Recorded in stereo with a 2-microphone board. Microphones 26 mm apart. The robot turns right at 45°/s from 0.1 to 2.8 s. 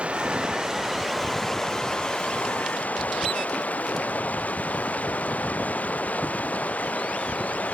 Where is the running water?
50° right; by 7.8 s 70° left.